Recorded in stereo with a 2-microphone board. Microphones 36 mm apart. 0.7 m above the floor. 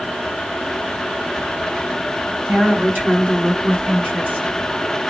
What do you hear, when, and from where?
2.5 s a woman speaking: 55° right (ahead or behind), 6.5 m; by 4.5 s 50° right (ahead or behind), 5 m